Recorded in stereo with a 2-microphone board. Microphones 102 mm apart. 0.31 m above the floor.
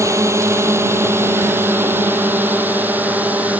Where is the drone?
30° right (ahead or behind); by 3.6 s 15° right (ahead or behind).